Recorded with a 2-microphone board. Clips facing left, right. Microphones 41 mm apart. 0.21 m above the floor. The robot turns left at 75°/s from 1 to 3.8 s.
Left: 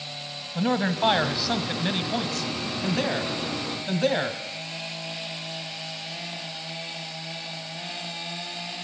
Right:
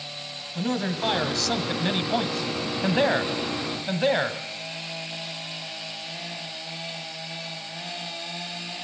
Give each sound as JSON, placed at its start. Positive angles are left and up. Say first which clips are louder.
{"t": 0.6, "sound": "a man speaking", "louder": "left 3 dB", "side_deg": 25, "distance_m": 1.3}